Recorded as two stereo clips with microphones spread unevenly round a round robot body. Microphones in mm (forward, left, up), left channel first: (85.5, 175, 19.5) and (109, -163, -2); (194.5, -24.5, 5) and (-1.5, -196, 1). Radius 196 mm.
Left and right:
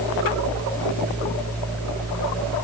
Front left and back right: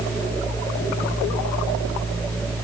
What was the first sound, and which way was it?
Only background noise.